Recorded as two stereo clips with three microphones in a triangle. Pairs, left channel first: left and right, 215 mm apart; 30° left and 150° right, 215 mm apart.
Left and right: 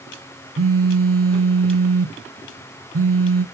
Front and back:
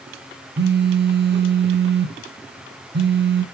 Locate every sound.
0.6 s a phone buzzing: 105° right, 0.5 m